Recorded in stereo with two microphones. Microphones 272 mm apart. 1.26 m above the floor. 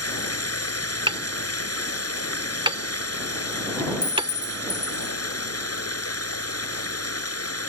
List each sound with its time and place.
0.0 s running water: 60° left (ahead or behind)
1.1 s hammering: 20° right (ahead or behind)
4.0 s a clink: 60° left (ahead or behind)